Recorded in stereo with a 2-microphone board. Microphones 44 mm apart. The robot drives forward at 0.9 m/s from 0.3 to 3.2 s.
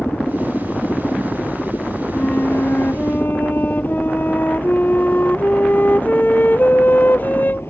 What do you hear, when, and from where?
0.0 s a helicopter: 60° left (ahead or behind)
2.1 s a flute: 45° left (ahead or behind)